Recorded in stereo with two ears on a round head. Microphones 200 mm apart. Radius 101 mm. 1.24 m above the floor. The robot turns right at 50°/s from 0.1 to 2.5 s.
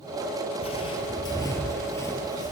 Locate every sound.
0.6 s footsteps: 25° left (ahead or behind), 1.4 m; by 2.5 s 20° left (ahead or behind), 1.4 m